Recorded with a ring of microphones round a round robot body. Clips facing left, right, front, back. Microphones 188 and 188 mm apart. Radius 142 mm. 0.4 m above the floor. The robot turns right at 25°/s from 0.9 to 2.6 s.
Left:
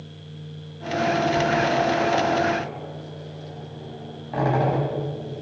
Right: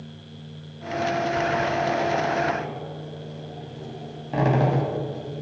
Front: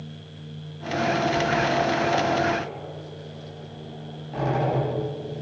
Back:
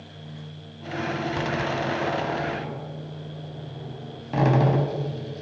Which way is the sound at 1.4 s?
170° left.